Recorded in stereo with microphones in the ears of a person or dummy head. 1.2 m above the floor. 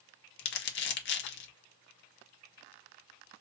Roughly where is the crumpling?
Left.